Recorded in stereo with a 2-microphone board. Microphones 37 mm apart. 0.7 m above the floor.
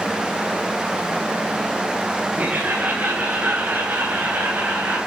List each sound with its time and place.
2.4 s laughter: 40° right (ahead or behind), 10 m; by 5.0 s 55° right (ahead or behind), 11.5 m